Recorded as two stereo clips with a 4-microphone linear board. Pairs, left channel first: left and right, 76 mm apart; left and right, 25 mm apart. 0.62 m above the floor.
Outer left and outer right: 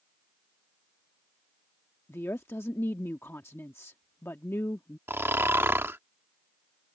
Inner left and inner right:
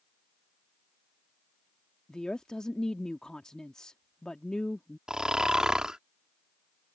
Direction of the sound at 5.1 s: 30° right (ahead or behind).